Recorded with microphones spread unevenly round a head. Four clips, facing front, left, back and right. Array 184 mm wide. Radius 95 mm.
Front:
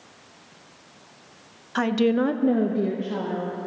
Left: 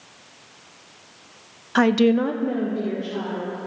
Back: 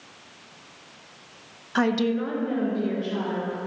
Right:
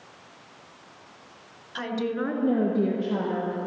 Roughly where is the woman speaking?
Left.